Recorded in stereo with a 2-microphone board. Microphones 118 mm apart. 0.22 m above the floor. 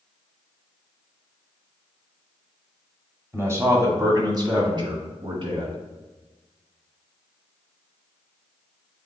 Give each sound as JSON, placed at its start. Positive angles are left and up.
{"t": 3.3, "sound": "a man speaking", "side_deg": -20, "distance_m": 1.5}